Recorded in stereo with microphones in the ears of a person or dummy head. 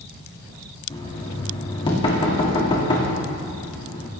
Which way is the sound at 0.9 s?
20° left (ahead or behind).